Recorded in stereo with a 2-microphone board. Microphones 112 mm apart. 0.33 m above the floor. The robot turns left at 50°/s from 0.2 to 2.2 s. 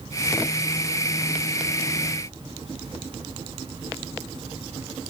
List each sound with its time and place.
Only background noise.